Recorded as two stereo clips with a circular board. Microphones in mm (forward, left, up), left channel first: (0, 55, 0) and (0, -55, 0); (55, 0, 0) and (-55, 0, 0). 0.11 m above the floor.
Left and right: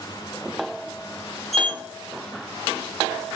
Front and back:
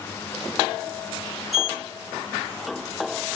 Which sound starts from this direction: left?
A sliding door, at 1.5 s.